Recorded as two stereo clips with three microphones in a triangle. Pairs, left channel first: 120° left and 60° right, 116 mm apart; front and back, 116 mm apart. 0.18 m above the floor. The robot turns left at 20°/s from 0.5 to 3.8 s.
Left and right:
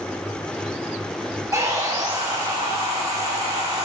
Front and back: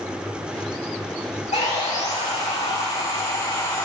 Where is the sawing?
Straight ahead, 5 m; by 3.9 s 45° right, 5 m.